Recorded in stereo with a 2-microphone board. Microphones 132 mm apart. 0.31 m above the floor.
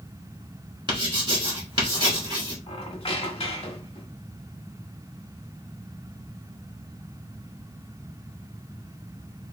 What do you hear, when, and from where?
0.9 s writing: 35° right (ahead or behind), 2.5 m
2.7 s a squeak: 45° left (ahead or behind), 1.3 m